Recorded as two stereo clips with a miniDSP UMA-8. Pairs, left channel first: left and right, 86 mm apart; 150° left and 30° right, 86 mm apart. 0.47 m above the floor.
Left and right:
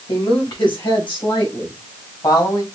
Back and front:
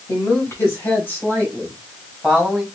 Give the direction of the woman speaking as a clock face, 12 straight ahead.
9 o'clock.